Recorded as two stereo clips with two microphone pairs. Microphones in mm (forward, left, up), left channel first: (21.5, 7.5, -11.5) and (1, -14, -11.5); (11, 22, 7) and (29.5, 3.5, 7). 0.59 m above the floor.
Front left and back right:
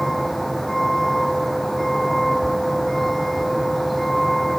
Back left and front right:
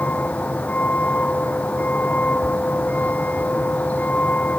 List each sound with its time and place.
0.0 s a vehicle: 130° left